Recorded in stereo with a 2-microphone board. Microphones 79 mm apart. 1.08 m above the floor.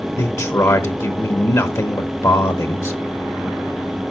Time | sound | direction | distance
0.2 | a man speaking | 45° left (ahead or behind) | 0.8 m